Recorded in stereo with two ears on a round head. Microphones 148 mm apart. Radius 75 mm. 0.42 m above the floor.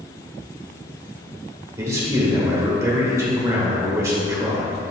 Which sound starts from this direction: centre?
A man speaking, at 1.8 s.